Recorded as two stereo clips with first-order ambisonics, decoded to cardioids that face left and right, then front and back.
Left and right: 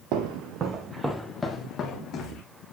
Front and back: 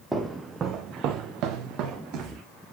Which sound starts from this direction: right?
Footsteps, at 0.1 s.